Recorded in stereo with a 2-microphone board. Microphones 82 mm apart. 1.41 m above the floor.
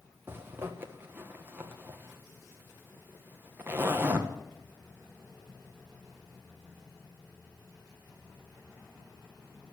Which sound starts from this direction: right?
A zipper, at 0.3 s.